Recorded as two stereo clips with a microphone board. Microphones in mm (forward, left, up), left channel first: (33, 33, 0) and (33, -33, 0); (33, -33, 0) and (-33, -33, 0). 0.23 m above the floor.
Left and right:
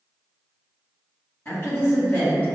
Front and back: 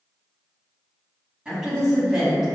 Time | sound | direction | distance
1.4 | a woman speaking | 110° left | 1.8 m